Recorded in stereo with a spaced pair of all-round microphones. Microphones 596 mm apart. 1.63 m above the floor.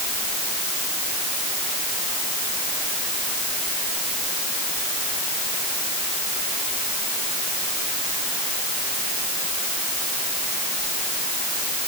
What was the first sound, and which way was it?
Only background noise.